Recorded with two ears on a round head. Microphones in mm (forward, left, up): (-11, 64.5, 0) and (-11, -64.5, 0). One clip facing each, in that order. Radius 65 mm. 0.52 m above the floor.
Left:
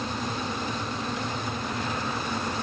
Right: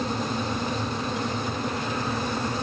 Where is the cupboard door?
No cupboard door in this recording.